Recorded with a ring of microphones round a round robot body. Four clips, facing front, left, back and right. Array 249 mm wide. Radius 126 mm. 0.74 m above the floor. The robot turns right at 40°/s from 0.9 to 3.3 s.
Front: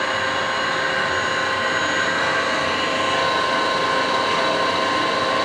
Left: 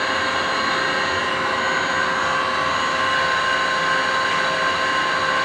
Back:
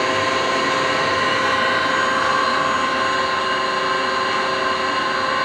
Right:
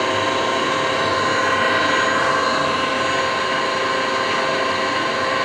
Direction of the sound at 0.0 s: 130° right.